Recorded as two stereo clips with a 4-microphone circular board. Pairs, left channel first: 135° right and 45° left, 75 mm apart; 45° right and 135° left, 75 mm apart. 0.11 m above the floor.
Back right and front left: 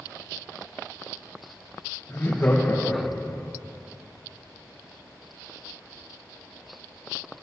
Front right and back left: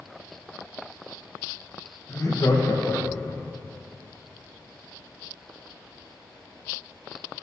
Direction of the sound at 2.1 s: 85° right.